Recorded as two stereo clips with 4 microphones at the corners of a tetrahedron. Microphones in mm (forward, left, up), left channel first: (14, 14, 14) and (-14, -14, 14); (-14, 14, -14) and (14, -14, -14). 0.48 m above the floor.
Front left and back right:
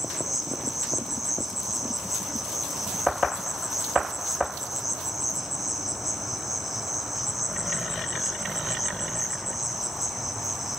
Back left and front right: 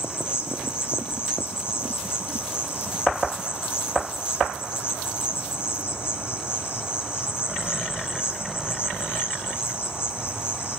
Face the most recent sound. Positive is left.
turn(degrees=140)